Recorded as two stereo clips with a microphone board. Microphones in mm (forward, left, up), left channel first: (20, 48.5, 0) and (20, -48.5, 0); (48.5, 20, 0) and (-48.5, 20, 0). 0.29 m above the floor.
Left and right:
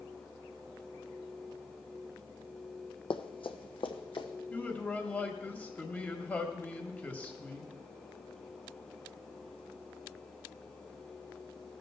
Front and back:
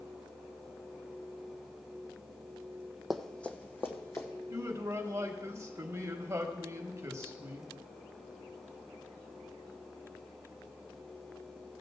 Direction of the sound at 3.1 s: 90° left.